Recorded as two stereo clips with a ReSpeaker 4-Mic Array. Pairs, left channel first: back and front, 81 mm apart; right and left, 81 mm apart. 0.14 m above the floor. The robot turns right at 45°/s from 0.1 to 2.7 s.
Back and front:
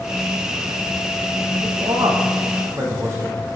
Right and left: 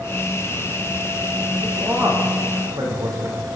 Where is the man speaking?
5° left, 7 m; by 3.4 s 50° left, 7 m.